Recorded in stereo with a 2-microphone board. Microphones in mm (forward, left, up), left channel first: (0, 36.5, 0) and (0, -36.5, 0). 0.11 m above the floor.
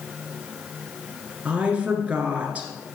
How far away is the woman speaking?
About 1.6 m.